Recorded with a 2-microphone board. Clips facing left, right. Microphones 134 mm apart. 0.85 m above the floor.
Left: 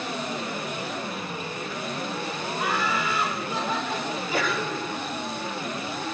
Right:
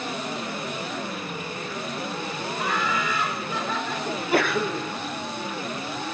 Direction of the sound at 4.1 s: 65° right (ahead or behind).